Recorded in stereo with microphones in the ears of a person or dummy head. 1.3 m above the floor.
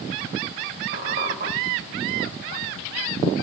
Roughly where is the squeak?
Right.